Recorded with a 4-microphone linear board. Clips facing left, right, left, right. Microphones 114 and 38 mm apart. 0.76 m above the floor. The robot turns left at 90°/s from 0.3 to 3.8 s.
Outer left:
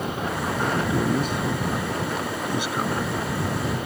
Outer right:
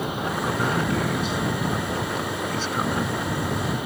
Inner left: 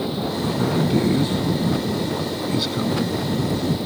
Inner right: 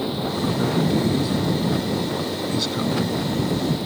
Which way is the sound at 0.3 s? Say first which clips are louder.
Outer right 1 dB, even; 35° right (ahead or behind).